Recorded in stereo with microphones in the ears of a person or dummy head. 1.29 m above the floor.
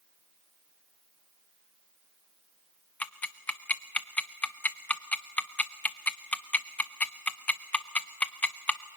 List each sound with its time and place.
3.0 s ticking: 10° left (ahead or behind), 0.6 m